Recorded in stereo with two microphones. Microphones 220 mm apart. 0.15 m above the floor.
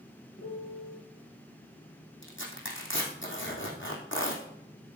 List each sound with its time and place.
0.4 s a piano: 65° left (ahead or behind), 2.5 m
2.2 s tearing paper: 65° left (ahead or behind), 2.5 m